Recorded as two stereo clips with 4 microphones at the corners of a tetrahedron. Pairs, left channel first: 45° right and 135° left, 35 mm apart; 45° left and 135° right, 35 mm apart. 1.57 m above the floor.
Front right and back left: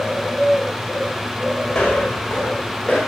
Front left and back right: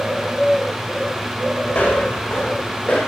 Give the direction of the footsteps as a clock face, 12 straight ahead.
11 o'clock.